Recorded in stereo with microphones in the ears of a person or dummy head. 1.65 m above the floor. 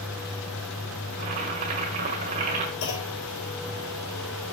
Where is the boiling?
25° right (ahead or behind), 1.5 m.